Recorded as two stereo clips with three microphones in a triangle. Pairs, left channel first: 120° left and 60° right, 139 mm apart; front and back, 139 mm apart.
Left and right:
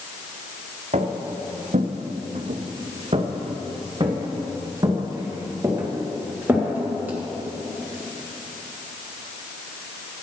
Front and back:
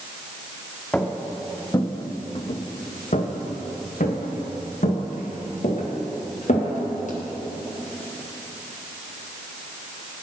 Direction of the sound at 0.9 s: 80° right.